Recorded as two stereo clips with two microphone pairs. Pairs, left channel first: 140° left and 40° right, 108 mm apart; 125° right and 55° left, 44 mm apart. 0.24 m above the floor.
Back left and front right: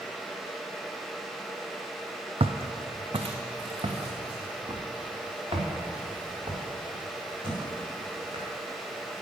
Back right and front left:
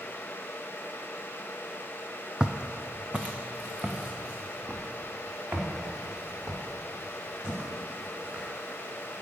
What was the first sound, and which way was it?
Footsteps, 20° right.